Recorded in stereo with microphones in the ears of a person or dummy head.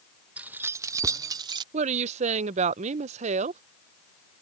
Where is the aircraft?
I don't hear an aircraft.